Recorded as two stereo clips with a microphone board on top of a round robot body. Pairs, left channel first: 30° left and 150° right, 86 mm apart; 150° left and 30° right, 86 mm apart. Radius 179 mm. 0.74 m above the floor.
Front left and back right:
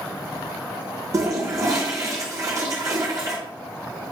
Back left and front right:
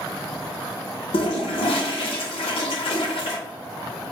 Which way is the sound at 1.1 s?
155° left.